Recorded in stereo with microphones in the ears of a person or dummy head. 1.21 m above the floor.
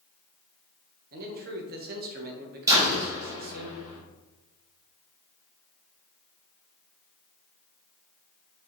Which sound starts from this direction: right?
A man speaking, at 1.1 s.